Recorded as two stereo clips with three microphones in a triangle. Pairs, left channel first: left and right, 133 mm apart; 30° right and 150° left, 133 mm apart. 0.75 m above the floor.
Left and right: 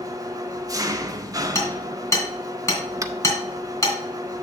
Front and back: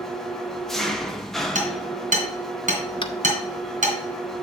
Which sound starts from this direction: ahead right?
Tapping, at 3.0 s.